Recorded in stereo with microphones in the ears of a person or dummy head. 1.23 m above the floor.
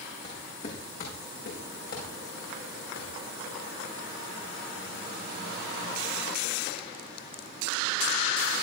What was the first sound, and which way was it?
Footsteps, 45° left (ahead or behind).